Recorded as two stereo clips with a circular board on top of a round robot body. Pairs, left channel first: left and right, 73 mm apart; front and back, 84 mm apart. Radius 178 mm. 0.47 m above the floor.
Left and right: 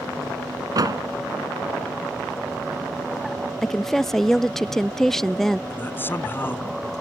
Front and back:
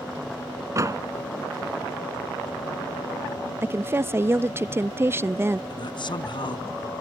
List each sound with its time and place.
0.8 s a door slam: 125° right
3.6 s a woman speaking: 170° left
5.7 s a man speaking: 30° left